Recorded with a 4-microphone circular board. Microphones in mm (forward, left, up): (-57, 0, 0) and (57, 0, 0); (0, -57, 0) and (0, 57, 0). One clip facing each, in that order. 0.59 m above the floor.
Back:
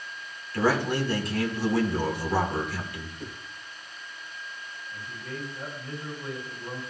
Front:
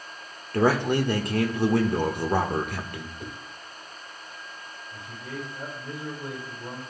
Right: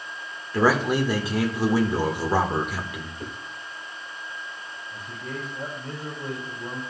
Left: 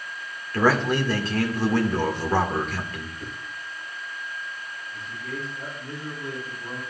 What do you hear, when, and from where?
0.5 s a man speaking: 15° right, 1.4 m
3.2 s a whoosh: 60° right, 3 m
4.9 s a man speaking: 55° right, 4.5 m